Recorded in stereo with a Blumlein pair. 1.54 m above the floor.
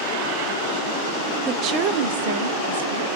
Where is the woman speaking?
25° right, 0.6 m; by 3.0 s 65° right, 1.5 m.